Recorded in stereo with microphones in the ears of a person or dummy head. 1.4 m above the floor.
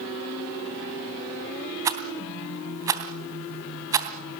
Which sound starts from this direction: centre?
A rattle, at 1.9 s.